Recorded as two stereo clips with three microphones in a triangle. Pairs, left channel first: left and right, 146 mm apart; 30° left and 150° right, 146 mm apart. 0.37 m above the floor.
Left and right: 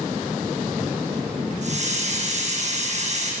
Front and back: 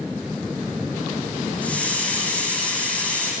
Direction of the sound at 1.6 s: 50° right.